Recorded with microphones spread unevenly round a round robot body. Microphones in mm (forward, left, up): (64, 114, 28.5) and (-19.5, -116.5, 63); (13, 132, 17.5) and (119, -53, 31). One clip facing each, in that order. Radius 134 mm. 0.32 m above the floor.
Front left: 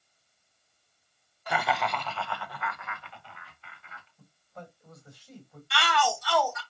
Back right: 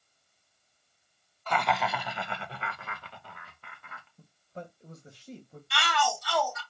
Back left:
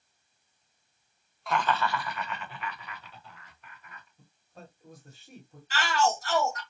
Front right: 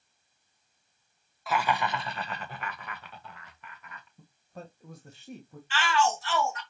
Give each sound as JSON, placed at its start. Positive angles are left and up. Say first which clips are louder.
{"t": 1.5, "sound": "laughter", "louder": "even, even", "azimuth_deg": 30, "distance_m": 1.1}
{"t": 4.2, "sound": "a man speaking", "louder": "back right 4 dB, front right 6 dB", "azimuth_deg": -50, "distance_m": 2.0}
{"t": 5.7, "sound": "a shout", "louder": "front left 2 dB, even", "azimuth_deg": 80, "distance_m": 2.5}